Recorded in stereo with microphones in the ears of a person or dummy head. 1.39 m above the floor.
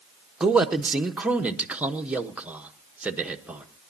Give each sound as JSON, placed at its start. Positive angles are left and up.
{"t": 0.4, "sound": "a man speaking", "side_deg": -5, "distance_m": 1.2}